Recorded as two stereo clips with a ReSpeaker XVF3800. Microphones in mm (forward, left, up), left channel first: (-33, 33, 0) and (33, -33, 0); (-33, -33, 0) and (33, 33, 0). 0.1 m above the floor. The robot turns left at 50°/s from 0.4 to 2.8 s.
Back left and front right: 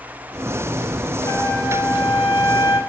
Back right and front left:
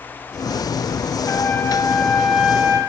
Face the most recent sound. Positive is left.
turn(degrees=105)